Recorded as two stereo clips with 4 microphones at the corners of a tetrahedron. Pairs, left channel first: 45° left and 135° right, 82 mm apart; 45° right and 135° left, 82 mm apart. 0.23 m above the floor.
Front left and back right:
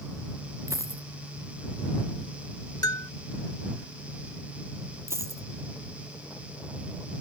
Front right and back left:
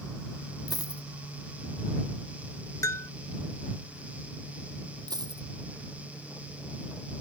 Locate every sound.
0.7 s a dropped coin: 85° right
2.8 s a bell: 5° left
5.1 s a dropped coin: 170° left